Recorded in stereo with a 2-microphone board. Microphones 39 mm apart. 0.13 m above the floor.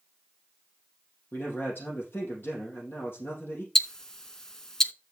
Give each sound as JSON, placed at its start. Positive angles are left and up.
{"t": 1.3, "sound": "a man speaking", "side_deg": 65, "distance_m": 3.5}
{"t": 3.8, "sound": "ticking", "side_deg": 15, "distance_m": 0.6}